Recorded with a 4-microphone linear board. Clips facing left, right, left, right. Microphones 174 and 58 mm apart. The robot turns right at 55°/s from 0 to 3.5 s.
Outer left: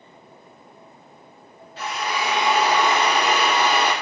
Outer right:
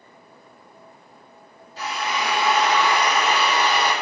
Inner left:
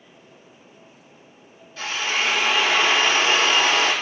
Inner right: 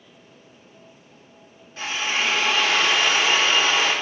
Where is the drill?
40° right, 3.5 m; by 3.9 s 55° left, 3.5 m.